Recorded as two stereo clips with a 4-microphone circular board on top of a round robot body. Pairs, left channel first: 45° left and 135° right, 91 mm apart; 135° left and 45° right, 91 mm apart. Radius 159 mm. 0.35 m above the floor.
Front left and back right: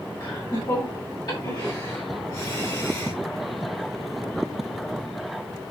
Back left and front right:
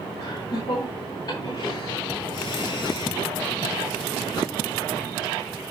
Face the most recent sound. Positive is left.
turn(degrees=95)